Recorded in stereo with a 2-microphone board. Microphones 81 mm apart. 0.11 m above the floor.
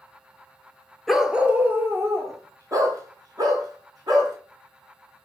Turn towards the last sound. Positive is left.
turn(degrees=-55)  # may be behind; listen again after turning